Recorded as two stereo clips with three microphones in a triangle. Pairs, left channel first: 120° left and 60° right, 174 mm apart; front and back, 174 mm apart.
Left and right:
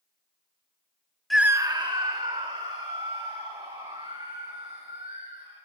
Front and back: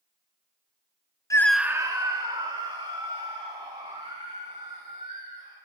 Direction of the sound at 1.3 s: 35° left.